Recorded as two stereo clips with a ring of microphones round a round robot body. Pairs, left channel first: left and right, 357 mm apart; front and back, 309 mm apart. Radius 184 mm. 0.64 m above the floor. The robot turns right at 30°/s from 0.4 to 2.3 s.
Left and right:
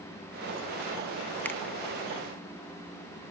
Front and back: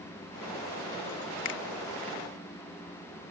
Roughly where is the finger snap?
Ahead.